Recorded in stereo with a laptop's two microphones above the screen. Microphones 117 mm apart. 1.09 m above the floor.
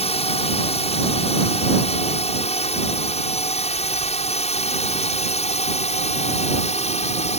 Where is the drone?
60° left (ahead or behind); by 7.4 s 70° left (ahead or behind).